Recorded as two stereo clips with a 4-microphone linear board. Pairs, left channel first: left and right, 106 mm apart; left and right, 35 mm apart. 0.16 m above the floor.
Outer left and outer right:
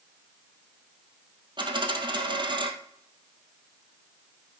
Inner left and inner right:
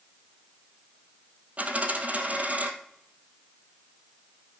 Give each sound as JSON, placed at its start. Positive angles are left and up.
{"t": 1.6, "sound": "a dropped coin", "side_deg": -45, "distance_m": 1.8}